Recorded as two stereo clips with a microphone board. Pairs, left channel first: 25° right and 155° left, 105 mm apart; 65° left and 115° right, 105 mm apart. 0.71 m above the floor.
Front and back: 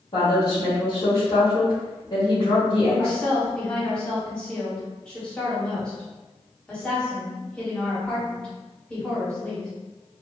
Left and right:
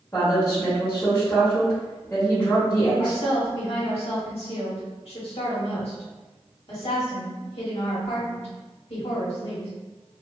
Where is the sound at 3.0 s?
60° left, 1.6 m.